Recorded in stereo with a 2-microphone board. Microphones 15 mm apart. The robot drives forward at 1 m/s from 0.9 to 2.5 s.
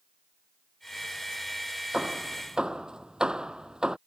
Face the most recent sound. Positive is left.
turn(degrees=-50)  # may be behind; listen again after turning